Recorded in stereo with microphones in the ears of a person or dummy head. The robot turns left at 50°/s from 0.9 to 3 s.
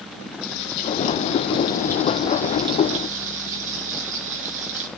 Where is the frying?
65° left, 4.5 m; by 4.9 s 40° right, 4.5 m.